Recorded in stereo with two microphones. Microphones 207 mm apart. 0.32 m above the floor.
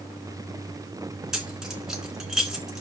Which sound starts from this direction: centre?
Keys jangling, at 1.3 s.